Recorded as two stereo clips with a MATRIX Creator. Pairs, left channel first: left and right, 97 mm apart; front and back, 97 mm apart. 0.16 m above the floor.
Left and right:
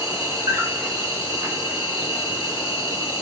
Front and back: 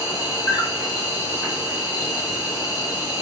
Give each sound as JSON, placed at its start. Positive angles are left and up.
{"t": 0.0, "sound": "an insect", "azimuth_deg": -40, "distance_m": 2.0}